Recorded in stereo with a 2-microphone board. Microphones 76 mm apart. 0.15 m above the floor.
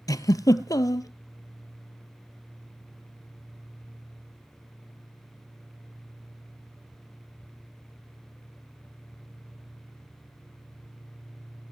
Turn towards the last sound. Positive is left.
turn(degrees=55)  # may be behind; listen again after turning